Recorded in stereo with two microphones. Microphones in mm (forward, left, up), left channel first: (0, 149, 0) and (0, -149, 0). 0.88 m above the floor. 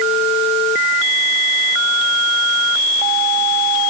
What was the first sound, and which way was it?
Only background noise.